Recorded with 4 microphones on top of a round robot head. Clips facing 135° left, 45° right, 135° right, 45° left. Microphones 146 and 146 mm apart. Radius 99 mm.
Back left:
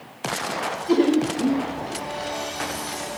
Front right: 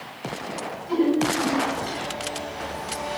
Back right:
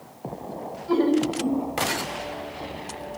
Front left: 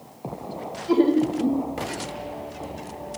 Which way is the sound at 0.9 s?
120° left.